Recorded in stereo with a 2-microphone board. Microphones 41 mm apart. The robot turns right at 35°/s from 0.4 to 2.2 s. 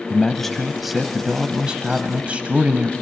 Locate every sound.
0.1 s a man speaking: 170° left, 1.4 m; by 2.9 s 130° right, 1.4 m